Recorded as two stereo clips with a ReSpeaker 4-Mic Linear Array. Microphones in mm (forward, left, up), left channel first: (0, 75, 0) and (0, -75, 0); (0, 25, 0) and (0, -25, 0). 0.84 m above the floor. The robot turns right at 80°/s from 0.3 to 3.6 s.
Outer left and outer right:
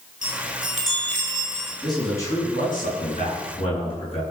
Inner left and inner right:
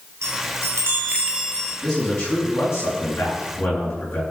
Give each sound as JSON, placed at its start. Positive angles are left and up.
{"t": 0.2, "sound": "a chime", "azimuth_deg": -110, "distance_m": 5.0}
{"t": 1.8, "sound": "a man speaking", "azimuth_deg": -5, "distance_m": 8.0}